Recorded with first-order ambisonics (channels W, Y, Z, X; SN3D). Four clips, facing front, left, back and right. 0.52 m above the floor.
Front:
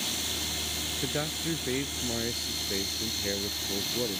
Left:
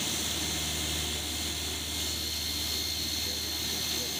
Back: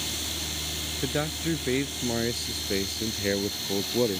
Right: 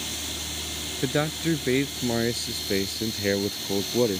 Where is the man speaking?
105° right; by 4.2 s 115° right.